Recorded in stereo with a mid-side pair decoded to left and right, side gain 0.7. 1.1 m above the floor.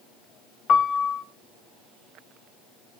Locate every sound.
0.7 s a piano: 40° left, 2 m